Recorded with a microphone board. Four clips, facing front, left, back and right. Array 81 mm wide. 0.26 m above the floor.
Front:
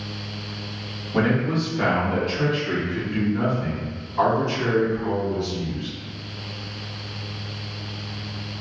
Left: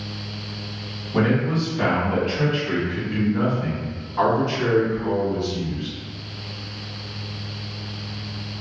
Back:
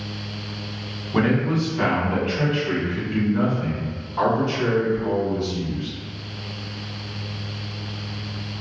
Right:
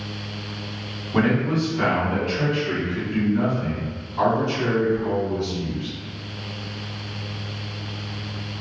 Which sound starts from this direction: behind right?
A man speaking, at 1.1 s.